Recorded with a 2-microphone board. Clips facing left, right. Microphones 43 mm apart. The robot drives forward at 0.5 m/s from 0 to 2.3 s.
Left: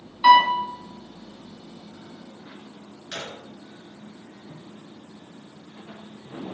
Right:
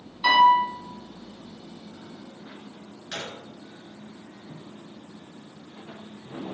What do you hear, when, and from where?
0.2 s a piano: 20° left (ahead or behind), 2.5 m; by 0.7 s 15° left (ahead or behind), 2.5 m
3.1 s a gunshot: 10° right (ahead or behind), 2.5 m